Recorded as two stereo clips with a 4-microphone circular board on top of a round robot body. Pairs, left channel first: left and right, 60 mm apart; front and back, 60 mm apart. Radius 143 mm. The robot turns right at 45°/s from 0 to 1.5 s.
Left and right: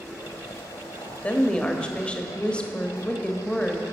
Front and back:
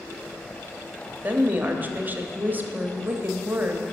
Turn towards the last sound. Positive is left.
turn(degrees=150)